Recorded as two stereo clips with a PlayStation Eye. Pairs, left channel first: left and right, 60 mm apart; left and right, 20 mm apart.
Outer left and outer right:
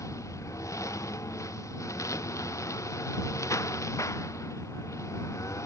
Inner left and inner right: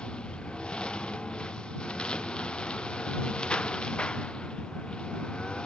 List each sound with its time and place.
0.0 s a lawn mower: 55° left (ahead or behind)